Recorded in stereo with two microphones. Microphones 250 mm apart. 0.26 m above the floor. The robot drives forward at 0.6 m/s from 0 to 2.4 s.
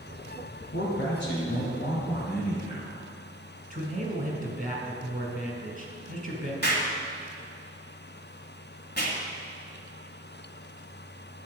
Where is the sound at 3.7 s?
35° right (ahead or behind), 2.5 m.